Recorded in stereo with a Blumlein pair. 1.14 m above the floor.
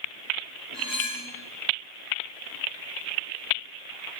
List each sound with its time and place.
0.7 s cutlery clinking: 10° left, 1.3 m